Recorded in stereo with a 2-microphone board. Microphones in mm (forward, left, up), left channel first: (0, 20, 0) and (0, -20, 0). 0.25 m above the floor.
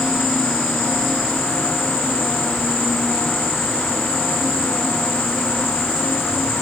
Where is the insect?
10° right (ahead or behind), 4 m.